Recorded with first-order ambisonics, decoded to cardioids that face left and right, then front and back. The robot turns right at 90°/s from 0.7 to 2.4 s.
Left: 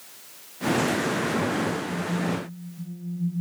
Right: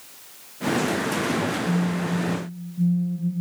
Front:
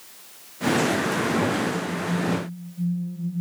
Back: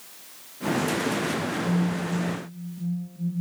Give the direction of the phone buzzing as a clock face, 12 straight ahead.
6 o'clock.